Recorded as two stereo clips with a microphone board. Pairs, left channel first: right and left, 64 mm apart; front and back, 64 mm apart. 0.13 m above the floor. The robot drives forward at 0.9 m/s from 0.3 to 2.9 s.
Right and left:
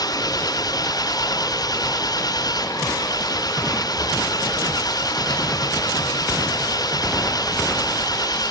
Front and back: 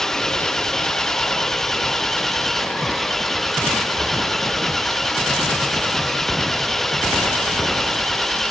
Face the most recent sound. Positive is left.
turn(degrees=-85)